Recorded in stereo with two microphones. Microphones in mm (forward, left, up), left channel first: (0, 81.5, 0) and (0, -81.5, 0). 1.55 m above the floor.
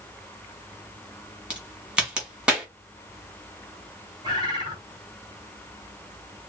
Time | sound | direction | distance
1.5 | a crack | 5° right (ahead or behind) | 2.5 m
4.2 | a bird | 30° right (ahead or behind) | 3 m